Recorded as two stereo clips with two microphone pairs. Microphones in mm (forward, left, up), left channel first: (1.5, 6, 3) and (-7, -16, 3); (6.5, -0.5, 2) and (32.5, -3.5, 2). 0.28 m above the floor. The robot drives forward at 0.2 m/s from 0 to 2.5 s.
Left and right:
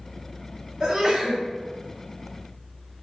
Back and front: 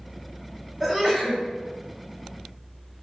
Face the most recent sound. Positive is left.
turn(degrees=-105)